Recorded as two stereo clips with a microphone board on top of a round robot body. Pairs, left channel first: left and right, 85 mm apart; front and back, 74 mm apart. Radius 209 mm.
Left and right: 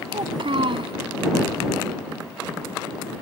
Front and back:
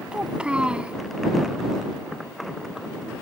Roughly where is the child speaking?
Right.